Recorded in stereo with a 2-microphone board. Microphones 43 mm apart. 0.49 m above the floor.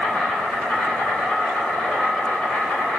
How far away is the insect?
About 1.8 m.